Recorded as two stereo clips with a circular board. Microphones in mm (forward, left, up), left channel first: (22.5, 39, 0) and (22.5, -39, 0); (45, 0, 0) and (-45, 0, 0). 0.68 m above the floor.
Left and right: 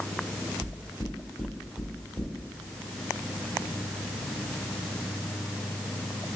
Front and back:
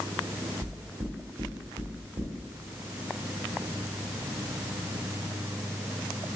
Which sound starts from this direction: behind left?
Knocking, at 0.6 s.